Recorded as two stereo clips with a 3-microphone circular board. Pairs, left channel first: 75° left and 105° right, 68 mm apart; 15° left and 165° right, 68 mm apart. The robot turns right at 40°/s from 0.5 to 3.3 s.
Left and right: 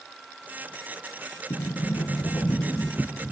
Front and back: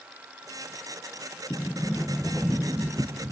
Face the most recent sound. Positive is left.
turn(degrees=150)